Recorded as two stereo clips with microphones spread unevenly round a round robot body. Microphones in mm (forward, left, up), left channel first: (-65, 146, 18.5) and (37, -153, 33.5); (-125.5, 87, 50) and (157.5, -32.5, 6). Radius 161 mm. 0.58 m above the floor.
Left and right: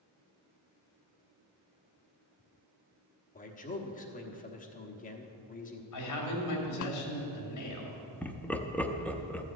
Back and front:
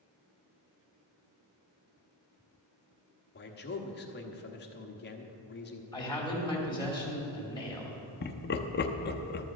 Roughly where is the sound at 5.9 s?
Left.